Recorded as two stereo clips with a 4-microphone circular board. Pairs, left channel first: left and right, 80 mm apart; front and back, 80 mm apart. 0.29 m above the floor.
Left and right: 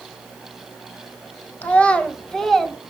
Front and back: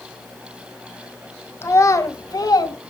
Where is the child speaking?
35° left, 1.0 m; by 2.8 s straight ahead, 1.4 m.